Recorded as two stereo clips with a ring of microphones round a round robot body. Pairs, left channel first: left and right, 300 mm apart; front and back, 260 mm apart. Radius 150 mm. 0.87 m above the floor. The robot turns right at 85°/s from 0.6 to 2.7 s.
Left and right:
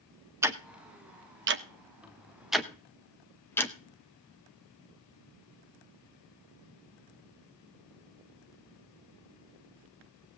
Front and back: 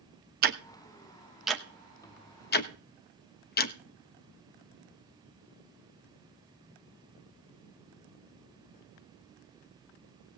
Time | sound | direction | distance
0.4 | ticking | 165° right | 0.9 m